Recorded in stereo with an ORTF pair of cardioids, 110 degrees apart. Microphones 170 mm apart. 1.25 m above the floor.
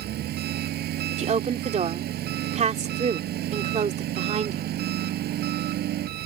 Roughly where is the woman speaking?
Ahead right.